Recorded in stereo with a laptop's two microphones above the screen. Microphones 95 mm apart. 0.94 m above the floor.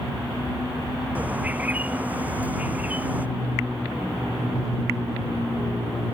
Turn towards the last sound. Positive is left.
turn(degrees=-15)  # may be behind; listen again after turning